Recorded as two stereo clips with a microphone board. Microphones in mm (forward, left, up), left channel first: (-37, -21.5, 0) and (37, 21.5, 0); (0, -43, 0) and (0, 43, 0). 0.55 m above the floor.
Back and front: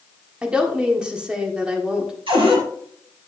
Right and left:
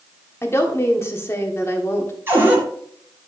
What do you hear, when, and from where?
0.4 s a woman speaking: 45° right, 1.4 m
2.3 s a cupboard door: 25° left, 3 m